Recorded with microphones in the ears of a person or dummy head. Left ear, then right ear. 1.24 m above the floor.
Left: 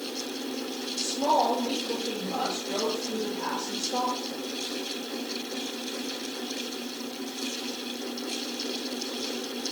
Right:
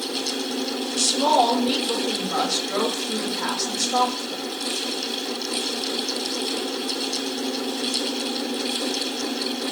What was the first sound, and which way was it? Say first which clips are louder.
A woman speaking: right 6 dB; 40° right (ahead or behind).